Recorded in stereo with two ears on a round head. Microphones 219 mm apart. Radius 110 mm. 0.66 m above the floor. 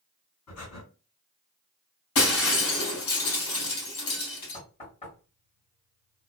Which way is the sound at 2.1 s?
65° left (ahead or behind).